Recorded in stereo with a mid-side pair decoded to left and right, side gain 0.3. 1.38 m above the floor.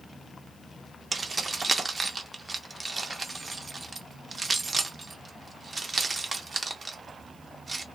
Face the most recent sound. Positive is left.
turn(degrees=-45)